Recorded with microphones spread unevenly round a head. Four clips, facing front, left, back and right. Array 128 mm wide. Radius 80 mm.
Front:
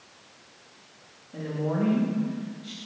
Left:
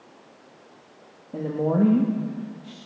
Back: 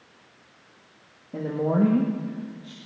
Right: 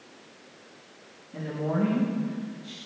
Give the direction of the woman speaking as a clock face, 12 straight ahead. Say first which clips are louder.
Left 6 dB, back 5 dB; 8 o'clock.